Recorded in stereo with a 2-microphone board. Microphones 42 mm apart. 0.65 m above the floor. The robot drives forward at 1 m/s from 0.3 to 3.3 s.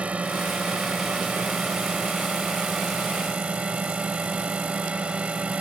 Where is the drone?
30° right (ahead or behind).